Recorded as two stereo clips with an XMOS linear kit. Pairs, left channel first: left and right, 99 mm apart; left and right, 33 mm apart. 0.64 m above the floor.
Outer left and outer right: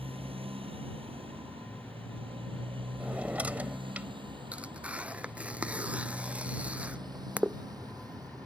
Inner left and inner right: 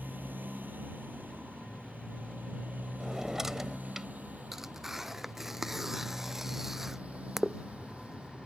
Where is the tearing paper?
15° right (ahead or behind).